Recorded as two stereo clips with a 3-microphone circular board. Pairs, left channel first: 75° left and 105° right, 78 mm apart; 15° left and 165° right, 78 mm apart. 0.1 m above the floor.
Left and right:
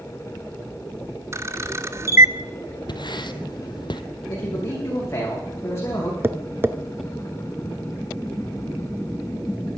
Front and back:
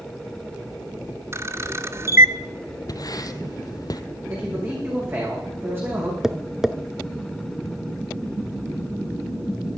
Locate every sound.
1.3 s a camera shutter: 135° right, 0.6 m
2.9 s writing: 55° left, 0.9 m
4.3 s a man speaking: 135° left, 7 m
6.2 s tapping: 85° right, 0.6 m